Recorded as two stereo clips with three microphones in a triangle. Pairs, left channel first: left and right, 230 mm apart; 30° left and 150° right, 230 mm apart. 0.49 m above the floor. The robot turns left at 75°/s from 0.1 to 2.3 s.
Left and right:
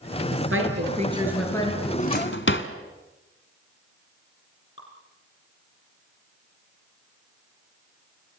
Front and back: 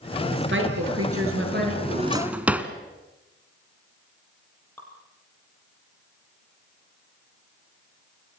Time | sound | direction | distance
0.3 | a woman speaking | 100° right | 7 m
1.8 | a drawer | 160° left | 1.4 m
4.8 | dripping | 110° left | 6.5 m